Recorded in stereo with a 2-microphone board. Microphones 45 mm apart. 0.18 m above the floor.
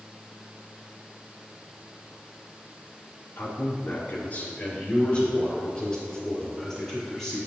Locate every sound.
3.4 s a man speaking: 50° left (ahead or behind), 2.5 m; by 7.4 s 10° left (ahead or behind), 6 m